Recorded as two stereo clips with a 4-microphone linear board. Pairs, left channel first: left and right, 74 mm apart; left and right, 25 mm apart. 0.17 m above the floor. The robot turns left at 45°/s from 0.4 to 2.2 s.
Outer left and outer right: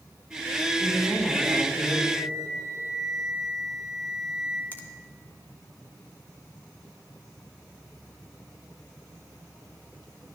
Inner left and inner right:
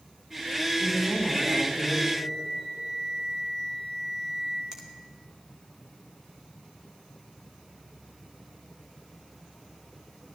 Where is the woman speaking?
5° left, 4.5 m; by 2.0 s 50° right, 4.5 m.